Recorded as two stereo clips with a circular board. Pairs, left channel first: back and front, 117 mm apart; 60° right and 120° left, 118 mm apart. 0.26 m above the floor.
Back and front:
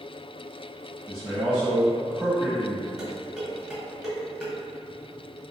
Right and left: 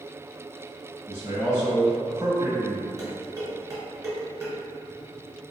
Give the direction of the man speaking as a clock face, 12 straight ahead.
9 o'clock.